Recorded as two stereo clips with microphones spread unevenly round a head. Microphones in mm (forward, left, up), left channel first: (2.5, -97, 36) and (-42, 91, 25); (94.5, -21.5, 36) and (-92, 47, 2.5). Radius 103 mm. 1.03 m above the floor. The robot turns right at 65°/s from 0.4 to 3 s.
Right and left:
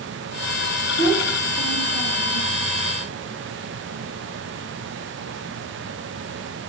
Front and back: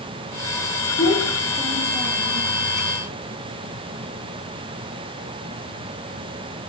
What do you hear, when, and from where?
1.0 s a child speaking: 25° left, 0.8 m; by 2.5 s 125° left, 0.8 m